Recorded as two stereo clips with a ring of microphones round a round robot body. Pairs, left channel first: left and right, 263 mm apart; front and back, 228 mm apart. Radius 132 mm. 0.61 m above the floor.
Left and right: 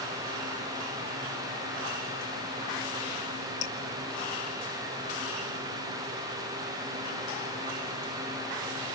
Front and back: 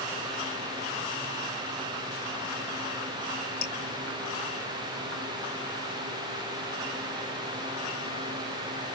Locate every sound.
3.6 s dripping: 45° left, 2.0 m